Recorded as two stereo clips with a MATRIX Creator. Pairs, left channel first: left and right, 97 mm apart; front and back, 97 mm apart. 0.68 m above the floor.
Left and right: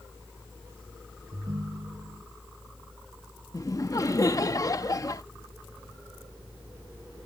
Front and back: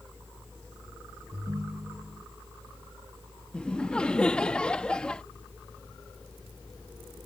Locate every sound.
1.3 s a ringtone: 130° right
3.5 s laughter: 75° left